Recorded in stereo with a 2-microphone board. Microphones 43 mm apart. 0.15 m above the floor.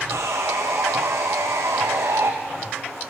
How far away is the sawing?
About 2 m.